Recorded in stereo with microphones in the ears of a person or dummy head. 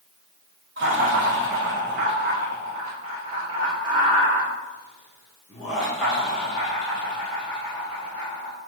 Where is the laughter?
70° right (ahead or behind), 1.7 m; by 8.5 s 20° left (ahead or behind), 3.5 m.